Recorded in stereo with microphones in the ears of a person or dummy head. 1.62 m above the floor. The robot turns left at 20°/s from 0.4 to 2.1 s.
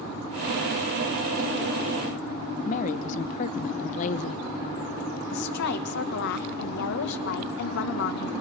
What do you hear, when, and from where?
2.6 s a woman speaking: 40° left (ahead or behind), 1.1 m
5.3 s a woman speaking: 70° left (ahead or behind), 1.7 m